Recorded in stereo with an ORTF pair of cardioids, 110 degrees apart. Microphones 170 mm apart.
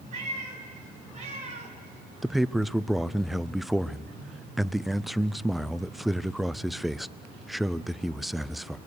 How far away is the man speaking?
About 0.5 m.